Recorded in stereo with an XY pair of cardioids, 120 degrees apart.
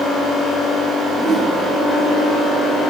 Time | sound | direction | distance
1.1 | a whoosh | 45° right | 6 m